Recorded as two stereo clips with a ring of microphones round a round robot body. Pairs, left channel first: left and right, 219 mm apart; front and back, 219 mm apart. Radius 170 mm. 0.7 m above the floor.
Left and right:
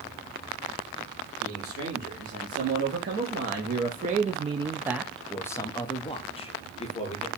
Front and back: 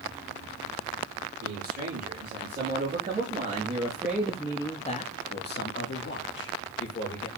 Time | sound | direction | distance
1.4 | a man speaking | 135° right | 1.7 m